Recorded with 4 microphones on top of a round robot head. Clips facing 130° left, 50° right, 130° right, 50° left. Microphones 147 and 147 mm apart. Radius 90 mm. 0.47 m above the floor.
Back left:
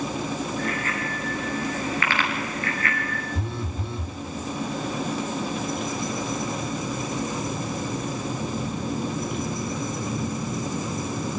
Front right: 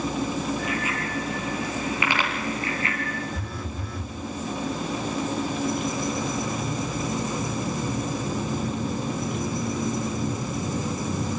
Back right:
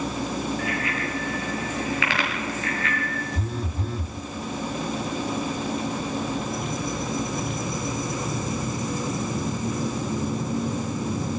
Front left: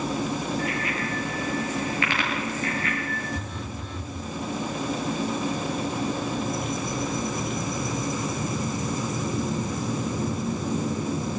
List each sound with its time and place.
0.6 s a bicycle bell: 130° right, 9 m; by 3.2 s 115° right, 5.5 m
3.4 s a phone buzzing: 170° right, 1.9 m